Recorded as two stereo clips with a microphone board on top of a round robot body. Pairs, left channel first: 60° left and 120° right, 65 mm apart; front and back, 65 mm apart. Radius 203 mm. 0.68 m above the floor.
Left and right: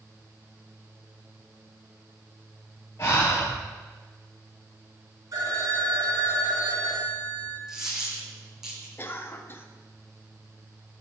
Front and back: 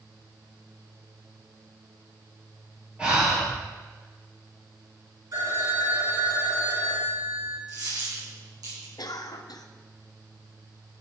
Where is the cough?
5° left, 1.2 m.